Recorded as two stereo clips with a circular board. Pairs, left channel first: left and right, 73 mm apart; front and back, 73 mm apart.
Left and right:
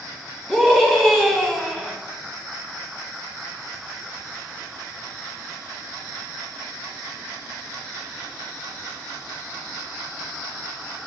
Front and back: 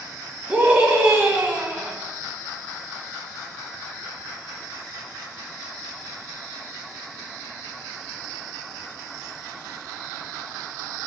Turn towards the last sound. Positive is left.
turn(degrees=155)